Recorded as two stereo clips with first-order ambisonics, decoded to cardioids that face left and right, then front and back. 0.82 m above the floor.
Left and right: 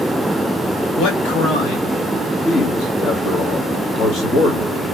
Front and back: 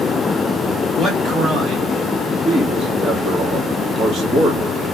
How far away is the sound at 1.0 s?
About 1.2 m.